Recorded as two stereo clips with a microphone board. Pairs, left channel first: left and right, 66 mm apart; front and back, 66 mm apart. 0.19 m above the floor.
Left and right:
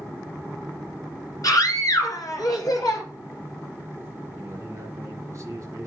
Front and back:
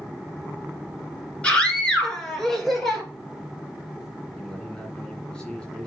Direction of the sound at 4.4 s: 75° right.